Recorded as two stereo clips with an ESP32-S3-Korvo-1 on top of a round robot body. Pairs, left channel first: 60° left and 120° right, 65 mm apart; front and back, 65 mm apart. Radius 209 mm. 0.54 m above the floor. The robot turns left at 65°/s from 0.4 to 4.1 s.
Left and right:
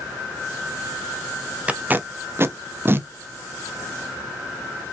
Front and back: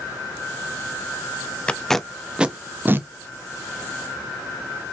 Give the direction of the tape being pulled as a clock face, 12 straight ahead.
2 o'clock.